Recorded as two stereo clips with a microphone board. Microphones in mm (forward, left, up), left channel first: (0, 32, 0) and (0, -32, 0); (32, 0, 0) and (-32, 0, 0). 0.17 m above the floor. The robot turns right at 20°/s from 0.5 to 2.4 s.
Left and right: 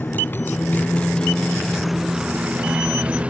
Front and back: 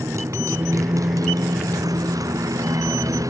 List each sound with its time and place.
0.0 s a motorcycle: 145° left; by 3.3 s 160° right